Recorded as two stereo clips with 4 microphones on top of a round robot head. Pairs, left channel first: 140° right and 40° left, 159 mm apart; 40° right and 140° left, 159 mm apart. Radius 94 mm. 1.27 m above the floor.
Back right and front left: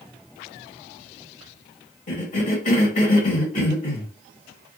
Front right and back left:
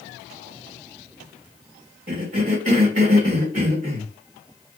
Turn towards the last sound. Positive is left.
turn(degrees=-175)